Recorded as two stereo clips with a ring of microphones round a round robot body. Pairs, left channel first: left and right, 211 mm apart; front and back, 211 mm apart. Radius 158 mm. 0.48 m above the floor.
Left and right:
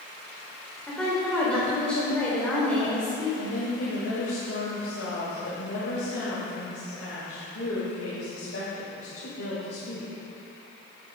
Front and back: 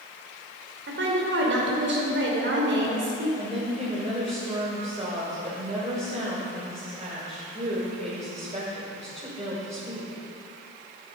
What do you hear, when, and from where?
0.9 s a woman speaking: 175° left, 2 m
3.4 s a woman speaking: 125° left, 2.5 m